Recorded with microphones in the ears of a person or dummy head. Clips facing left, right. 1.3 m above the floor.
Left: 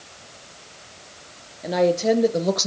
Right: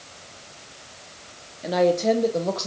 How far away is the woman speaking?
About 2.5 m.